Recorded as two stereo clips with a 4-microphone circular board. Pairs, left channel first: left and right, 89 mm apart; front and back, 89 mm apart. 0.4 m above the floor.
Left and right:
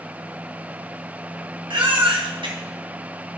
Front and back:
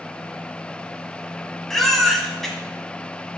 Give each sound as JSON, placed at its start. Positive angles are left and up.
{"t": 1.7, "sound": "a baby crying", "azimuth_deg": -85, "distance_m": 1.6}